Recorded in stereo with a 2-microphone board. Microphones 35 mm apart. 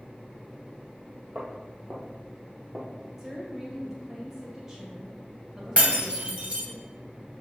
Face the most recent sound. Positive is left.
turn(degrees=-35)  # may be behind; listen again after turning